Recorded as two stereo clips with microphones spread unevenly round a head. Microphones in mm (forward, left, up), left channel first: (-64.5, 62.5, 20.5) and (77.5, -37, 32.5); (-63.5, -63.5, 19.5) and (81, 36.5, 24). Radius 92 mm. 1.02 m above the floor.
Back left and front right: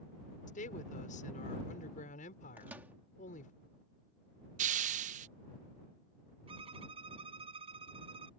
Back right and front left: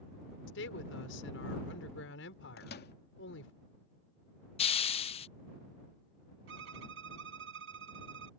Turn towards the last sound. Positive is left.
turn(degrees=20)